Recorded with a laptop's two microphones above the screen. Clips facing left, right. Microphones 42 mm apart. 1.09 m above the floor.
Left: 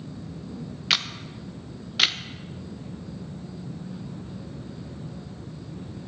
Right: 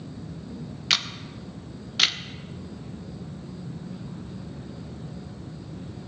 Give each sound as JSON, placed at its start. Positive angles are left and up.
{"t": 0.9, "sound": "a camera shutter", "side_deg": 5, "distance_m": 0.6}